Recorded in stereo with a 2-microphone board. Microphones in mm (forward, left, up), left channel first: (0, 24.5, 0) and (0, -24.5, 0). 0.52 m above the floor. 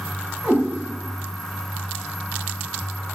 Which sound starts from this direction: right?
A cat meowing, at 0.4 s.